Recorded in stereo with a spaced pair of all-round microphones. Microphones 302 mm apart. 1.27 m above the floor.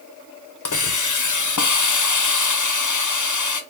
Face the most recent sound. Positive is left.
turn(degrees=75)  # may be behind; listen again after turning